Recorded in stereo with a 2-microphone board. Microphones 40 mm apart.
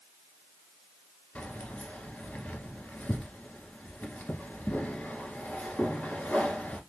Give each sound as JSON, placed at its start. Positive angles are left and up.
{"t": 1.4, "sound": "keys jangling", "side_deg": 30, "distance_m": 1.1}